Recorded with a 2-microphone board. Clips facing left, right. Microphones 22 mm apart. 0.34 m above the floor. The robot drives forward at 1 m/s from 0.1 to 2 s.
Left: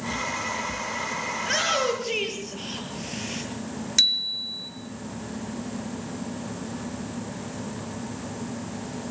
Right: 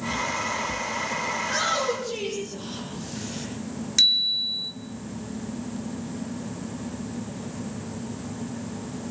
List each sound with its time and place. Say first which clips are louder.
1.4 s a shout: left 3 dB; 70° left (ahead or behind), 8.5 m
4.0 s a bicycle bell: right 2 dB; 5° left (ahead or behind), 2.5 m